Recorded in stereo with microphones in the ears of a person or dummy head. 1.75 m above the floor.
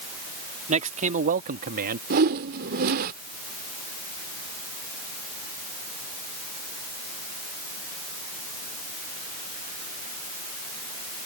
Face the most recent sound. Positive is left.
turn(degrees=-55)  # may be behind; listen again after turning